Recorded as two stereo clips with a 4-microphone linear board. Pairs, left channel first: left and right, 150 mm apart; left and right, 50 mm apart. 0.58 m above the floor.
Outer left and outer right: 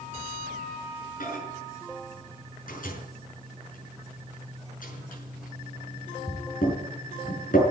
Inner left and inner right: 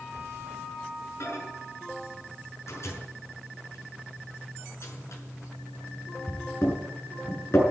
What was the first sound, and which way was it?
A microwave, 70° left (ahead or behind).